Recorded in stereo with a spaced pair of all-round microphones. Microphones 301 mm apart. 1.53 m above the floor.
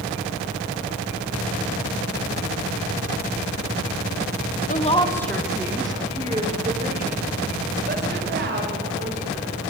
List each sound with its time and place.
4.7 s a woman speaking: 30° left (ahead or behind), 1.8 m; by 9.5 s 40° right (ahead or behind), 7.5 m